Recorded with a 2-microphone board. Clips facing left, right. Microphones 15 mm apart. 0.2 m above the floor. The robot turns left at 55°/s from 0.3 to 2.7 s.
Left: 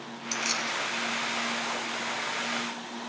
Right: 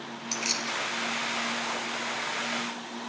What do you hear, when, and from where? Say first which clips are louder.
0.3 s keys jangling: left 1 dB; 5° right (ahead or behind), 2.5 m; by 0.7 s 25° right (ahead or behind), 2.5 m